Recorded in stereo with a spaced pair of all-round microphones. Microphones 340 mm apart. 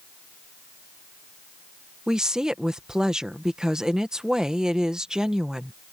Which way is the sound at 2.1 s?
Centre (ahead or behind).